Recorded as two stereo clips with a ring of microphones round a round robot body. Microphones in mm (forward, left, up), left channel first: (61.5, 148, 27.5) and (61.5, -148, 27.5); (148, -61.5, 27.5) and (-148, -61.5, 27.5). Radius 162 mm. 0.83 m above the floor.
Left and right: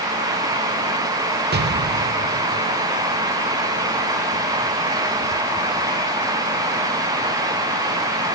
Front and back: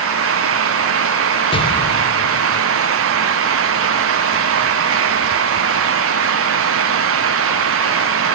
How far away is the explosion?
About 0.9 m.